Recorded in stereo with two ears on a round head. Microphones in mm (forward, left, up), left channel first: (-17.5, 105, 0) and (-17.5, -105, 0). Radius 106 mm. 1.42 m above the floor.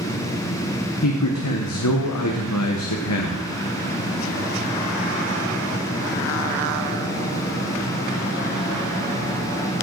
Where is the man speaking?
80° left, 1.1 m.